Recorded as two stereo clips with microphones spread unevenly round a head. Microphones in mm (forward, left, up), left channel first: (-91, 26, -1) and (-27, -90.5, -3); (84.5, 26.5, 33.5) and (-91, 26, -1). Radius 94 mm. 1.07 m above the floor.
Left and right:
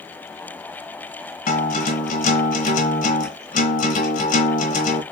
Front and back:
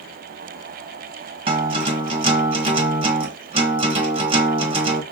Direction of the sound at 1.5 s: 115° left.